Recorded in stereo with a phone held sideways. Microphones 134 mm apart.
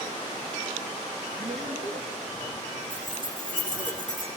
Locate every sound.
1.4 s a man speaking: 85° right, 1.4 m; by 3.9 s 65° right (ahead or behind), 4 m
2.9 s keys jangling: 70° right (ahead or behind), 1.7 m